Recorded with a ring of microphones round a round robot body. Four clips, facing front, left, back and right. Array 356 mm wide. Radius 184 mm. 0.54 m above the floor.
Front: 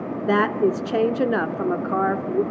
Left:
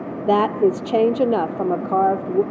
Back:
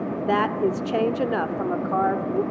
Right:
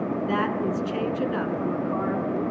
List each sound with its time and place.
0.3 s a woman speaking: 65° left, 1.2 m